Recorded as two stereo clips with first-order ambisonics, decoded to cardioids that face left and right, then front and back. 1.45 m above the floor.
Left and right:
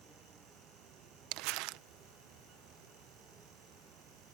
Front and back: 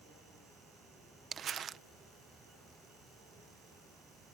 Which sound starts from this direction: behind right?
Crumpling, at 1.3 s.